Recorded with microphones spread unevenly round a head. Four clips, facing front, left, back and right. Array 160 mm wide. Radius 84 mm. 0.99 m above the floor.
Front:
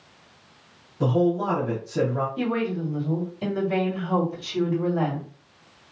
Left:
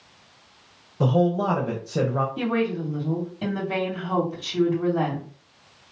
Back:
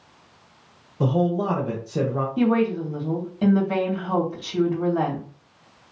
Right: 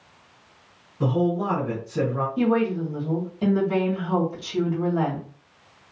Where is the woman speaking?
Straight behind, 2.5 m.